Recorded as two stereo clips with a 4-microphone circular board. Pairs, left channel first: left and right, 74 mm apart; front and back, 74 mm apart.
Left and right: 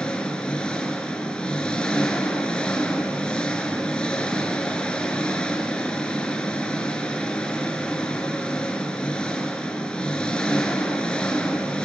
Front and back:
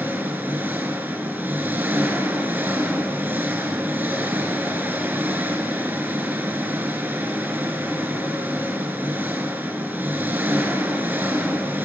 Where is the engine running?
155° left, 1.4 m.